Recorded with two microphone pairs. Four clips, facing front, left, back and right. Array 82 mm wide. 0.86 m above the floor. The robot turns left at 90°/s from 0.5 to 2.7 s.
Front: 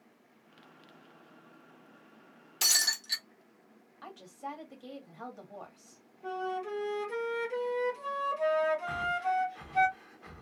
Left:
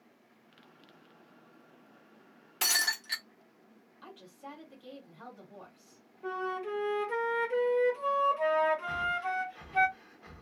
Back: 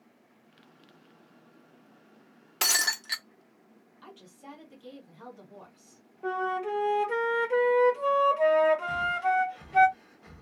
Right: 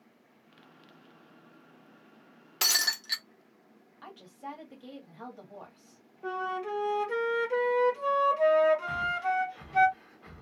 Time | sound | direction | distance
2.6 | breaking glass | 165° right | 0.6 m
4.0 | a woman speaking | 35° right | 1.3 m
6.2 | a flute | 155° right | 1.2 m
8.9 | breathing | 25° right | 0.7 m